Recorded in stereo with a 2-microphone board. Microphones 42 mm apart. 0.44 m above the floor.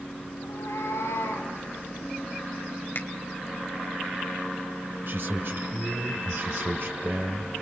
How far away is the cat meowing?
About 9 m.